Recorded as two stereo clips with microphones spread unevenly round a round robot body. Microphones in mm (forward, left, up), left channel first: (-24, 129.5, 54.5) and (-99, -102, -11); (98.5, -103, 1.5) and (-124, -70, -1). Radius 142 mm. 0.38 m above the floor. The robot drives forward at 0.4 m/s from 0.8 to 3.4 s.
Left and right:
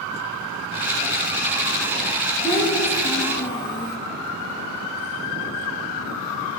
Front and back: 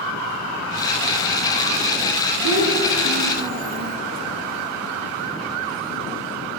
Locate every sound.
2.4 s a child speaking: 155° left, 3 m; by 4.0 s 160° left, 3.5 m